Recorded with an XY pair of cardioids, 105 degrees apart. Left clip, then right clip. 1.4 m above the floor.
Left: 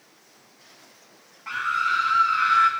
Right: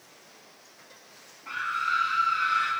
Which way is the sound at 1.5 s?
45° left.